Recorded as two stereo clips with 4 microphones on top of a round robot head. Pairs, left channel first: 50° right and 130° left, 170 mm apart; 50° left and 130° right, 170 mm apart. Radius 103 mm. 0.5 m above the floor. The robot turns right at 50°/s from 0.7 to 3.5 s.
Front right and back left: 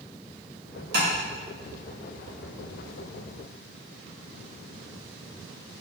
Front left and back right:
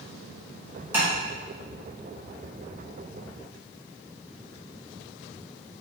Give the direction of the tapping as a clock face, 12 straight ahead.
7 o'clock.